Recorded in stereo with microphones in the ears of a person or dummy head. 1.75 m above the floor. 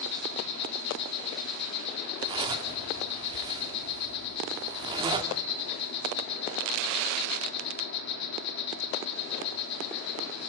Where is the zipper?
25° right (ahead or behind), 1.9 m.